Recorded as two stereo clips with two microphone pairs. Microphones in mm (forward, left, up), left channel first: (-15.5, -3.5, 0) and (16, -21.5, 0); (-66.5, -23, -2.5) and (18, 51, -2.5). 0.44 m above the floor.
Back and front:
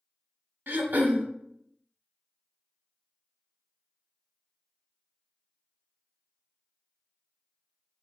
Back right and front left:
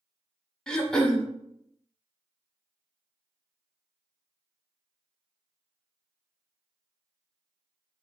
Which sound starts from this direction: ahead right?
Throat clearing, at 0.7 s.